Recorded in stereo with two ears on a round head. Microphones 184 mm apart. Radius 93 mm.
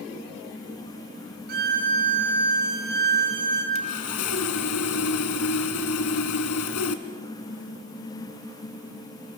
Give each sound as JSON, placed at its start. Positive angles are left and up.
{"t": 1.5, "sound": "a violin", "side_deg": -50, "distance_m": 5.0}
{"t": 3.8, "sound": "sawing", "side_deg": 85, "distance_m": 1.7}